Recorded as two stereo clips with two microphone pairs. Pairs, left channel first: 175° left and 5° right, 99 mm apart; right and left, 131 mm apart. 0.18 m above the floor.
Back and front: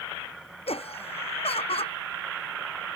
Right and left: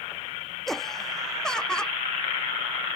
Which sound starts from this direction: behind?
Laughter, at 0.7 s.